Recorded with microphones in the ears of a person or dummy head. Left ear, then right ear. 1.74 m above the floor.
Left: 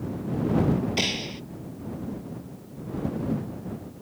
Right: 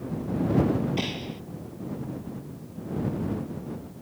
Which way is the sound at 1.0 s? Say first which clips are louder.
Left 5 dB; 40° left (ahead or behind).